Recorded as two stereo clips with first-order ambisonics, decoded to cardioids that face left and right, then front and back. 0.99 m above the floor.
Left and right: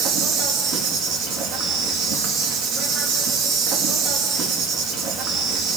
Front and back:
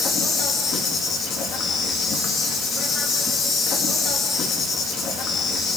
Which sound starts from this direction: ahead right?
An insect, at 0.0 s.